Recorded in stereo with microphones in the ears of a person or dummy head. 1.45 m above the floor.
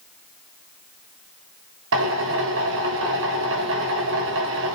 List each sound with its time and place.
1.9 s a drill: 75° right (ahead or behind), 4 m